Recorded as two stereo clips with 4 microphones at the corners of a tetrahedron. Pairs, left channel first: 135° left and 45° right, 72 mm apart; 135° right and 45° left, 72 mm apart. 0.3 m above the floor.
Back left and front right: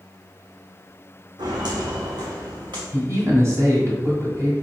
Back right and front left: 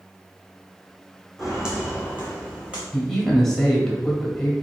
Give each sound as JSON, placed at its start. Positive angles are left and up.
{"t": 1.4, "sound": "footsteps", "azimuth_deg": -40, "distance_m": 1.1}
{"t": 2.9, "sound": "a man speaking", "azimuth_deg": -55, "distance_m": 1.3}